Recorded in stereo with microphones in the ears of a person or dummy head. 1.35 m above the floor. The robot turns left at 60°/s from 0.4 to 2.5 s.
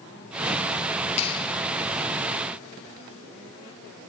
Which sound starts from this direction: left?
A clap, at 1.2 s.